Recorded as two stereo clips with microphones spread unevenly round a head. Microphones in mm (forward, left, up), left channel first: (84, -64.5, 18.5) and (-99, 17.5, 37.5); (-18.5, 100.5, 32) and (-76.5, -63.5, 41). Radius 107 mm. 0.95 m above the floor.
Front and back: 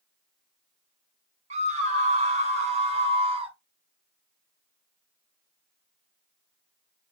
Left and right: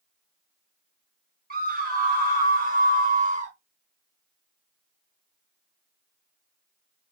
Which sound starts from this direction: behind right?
A scream, at 1.5 s.